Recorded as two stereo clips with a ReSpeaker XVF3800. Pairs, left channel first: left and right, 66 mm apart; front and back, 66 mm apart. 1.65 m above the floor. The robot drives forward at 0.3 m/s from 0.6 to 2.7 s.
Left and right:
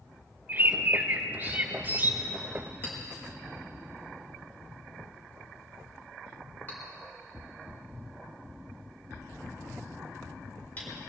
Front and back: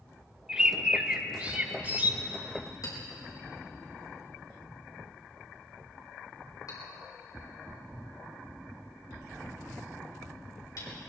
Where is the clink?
25° left, 4.5 m.